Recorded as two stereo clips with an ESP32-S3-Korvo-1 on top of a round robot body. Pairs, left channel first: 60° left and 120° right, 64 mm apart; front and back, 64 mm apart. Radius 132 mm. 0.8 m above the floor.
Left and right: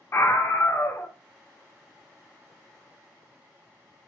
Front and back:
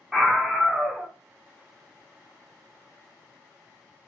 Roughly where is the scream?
Left.